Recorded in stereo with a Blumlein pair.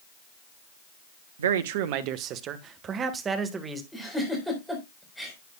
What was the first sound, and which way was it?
A man speaking, 65° right.